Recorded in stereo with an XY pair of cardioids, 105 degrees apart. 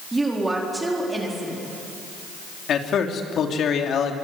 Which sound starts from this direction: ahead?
A woman speaking, at 0.1 s.